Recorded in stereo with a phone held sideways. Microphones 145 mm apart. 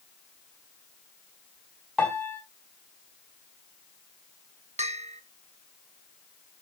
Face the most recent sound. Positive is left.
turn(degrees=-50)  # may be behind; listen again after turning